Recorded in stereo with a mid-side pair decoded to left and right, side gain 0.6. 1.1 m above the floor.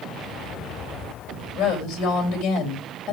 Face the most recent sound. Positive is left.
turn(degrees=65)